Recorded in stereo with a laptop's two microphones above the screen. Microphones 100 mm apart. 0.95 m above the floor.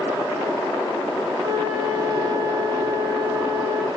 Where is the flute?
40° right (ahead or behind), 4.5 m.